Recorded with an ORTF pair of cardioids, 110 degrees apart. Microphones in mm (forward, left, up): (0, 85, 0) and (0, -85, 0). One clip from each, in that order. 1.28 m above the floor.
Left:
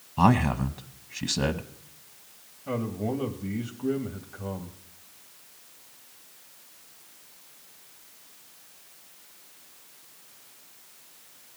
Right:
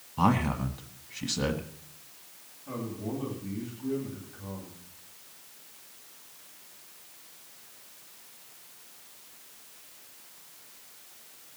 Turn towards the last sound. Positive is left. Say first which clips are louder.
# left 6 dB
turn(degrees=65)